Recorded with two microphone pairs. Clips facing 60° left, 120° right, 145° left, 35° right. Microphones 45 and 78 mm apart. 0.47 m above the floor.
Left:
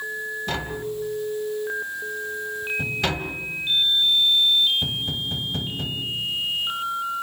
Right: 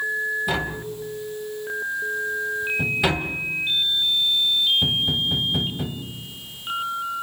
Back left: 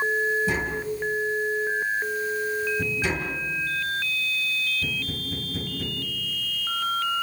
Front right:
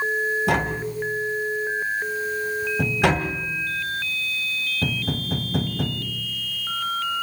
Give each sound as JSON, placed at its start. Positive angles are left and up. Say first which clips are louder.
{"t": 0.5, "sound": "tapping", "louder": "right 2 dB, front right 3 dB", "azimuth_deg": -40, "distance_m": 2.0}